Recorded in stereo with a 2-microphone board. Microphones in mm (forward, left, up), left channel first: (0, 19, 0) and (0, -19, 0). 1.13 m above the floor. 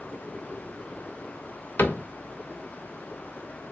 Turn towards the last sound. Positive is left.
turn(degrees=65)  # may be behind; listen again after turning